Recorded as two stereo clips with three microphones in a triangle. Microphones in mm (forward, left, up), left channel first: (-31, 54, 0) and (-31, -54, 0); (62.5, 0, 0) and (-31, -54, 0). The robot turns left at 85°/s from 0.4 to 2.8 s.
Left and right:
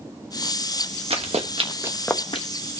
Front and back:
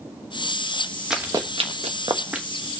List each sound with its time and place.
1.1 s running footsteps: 65° right, 1.7 m; by 2.5 s 115° left, 1.1 m